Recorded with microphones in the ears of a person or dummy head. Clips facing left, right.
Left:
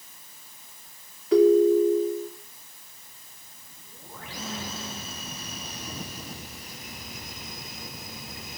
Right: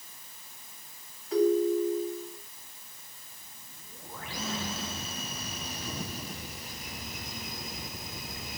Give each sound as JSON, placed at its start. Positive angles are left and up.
{"t": 1.3, "sound": "a ringtone", "side_deg": 70, "distance_m": 3.0}